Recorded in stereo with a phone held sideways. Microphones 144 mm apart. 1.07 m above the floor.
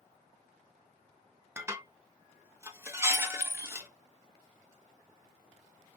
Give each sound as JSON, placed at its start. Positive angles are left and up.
{"t": 1.6, "sound": "dishes clattering", "side_deg": -20, "distance_m": 0.6}
{"t": 3.1, "sound": "a clink", "side_deg": 75, "distance_m": 0.6}